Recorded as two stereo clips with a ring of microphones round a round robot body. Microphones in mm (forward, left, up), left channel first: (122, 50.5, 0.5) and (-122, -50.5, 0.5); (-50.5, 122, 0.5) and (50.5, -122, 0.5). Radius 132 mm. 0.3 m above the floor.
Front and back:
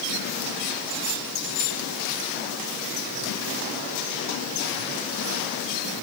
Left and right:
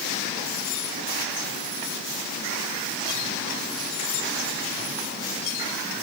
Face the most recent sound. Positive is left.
No sound to turn to.